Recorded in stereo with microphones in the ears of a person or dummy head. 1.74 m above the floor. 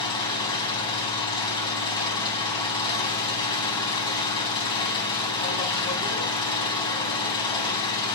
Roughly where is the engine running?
Left.